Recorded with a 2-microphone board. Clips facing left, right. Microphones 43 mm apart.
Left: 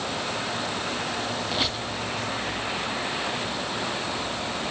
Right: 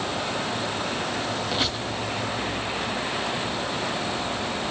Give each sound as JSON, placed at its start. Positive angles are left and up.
{"t": 1.5, "sound": "a squeak", "side_deg": -5, "distance_m": 3.0}